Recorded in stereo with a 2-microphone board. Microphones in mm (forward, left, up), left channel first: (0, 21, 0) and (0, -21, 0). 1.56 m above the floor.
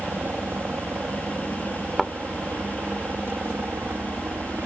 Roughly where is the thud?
Centre.